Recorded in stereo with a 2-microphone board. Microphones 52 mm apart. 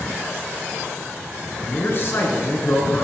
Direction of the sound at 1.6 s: 50° left (ahead or behind).